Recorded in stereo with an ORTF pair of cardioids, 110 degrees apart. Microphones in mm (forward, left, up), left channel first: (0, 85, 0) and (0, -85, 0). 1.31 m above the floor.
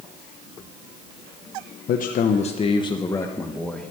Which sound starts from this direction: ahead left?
A man speaking, at 1.9 s.